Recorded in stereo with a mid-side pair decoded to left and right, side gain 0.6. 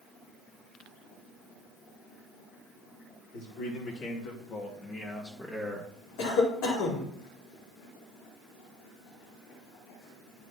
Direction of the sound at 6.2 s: 70° left.